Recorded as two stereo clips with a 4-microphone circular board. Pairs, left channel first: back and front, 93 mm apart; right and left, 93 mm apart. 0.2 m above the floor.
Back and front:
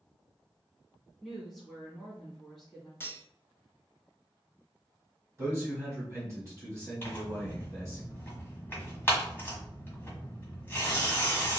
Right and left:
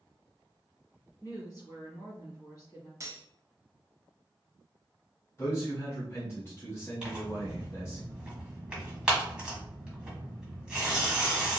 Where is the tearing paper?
165° left, 1.5 m.